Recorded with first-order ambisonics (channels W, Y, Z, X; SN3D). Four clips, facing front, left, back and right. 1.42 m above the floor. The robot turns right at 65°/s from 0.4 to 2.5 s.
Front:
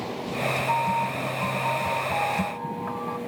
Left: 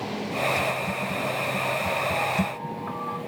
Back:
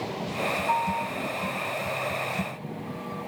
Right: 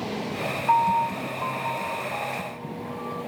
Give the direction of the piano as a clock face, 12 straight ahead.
3 o'clock.